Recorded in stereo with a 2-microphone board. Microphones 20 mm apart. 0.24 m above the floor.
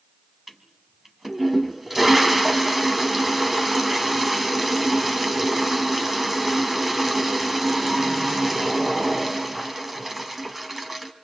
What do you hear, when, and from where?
0.5 s a toilet flushing: 10° right (ahead or behind), 2 m